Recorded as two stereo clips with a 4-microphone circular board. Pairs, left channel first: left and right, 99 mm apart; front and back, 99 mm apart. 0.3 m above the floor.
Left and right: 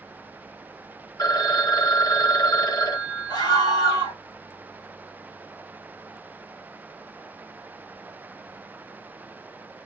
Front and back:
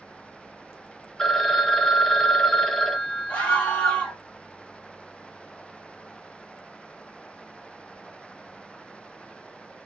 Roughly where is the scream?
Left.